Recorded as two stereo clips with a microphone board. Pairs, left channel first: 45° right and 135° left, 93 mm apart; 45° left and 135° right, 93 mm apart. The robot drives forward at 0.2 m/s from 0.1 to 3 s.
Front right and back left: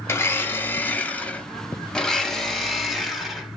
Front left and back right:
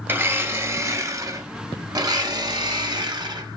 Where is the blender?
85° right, 0.8 m; by 3.6 s 140° right, 0.9 m.